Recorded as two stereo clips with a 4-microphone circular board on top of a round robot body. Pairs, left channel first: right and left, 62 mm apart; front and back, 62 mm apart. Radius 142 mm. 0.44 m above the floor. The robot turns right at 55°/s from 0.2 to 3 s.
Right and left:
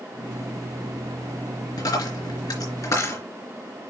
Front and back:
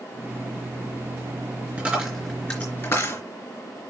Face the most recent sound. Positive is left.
turn(degrees=-50)